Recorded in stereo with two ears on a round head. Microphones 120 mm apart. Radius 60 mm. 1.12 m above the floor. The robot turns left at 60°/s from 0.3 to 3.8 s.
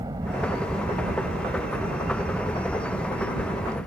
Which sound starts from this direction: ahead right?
A helicopter, at 0.0 s.